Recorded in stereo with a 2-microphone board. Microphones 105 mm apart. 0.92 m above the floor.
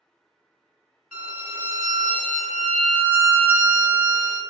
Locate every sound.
1.1 s a violin: 10° right (ahead or behind), 1.5 m